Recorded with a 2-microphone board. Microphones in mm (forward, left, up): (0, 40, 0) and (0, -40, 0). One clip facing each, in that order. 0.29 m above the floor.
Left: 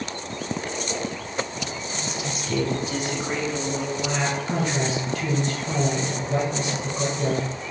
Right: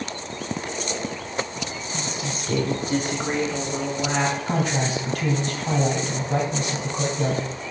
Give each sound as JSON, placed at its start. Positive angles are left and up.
{"t": 1.9, "sound": "a woman speaking", "side_deg": -30, "distance_m": 1.5}
{"t": 4.5, "sound": "a man speaking", "side_deg": -45, "distance_m": 2.5}